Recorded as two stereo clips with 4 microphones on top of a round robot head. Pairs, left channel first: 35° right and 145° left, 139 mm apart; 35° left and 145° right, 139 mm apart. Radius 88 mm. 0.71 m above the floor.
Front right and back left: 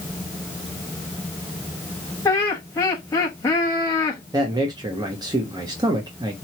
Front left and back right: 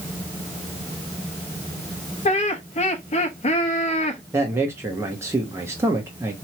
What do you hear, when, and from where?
2.2 s laughter: 30° left, 0.9 m
4.3 s a man speaking: 165° left, 1.1 m